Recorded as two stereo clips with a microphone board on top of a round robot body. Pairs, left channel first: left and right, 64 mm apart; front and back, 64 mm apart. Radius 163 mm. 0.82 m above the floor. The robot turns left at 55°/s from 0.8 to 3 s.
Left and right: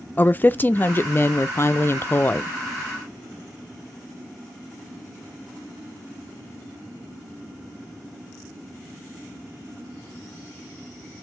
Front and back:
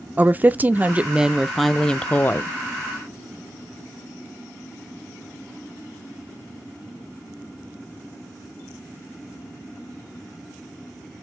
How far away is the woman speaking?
About 0.5 m.